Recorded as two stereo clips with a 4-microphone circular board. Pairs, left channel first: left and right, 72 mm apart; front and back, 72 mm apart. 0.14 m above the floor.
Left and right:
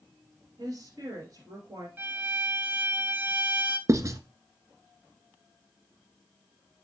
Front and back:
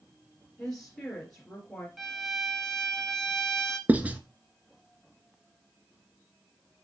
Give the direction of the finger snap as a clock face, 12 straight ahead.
I don't hear a finger snap.